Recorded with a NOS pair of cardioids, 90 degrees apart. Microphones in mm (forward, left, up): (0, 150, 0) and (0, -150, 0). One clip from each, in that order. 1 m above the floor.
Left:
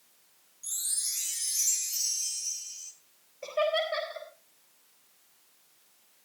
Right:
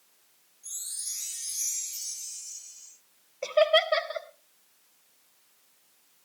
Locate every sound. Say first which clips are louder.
0.6 s a chime: left 4 dB; 60° left, 5.5 m
3.4 s laughter: right 6 dB; 60° right, 3.5 m